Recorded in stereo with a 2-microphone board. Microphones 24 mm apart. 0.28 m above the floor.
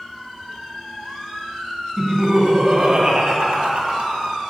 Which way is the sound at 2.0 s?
30° right (ahead or behind).